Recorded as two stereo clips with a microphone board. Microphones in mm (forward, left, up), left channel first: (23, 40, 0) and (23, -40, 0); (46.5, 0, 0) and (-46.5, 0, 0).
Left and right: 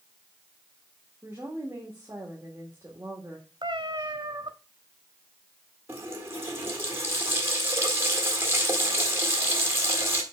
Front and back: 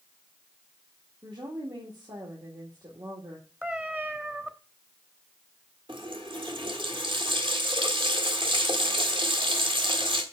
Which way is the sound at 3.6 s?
110° right.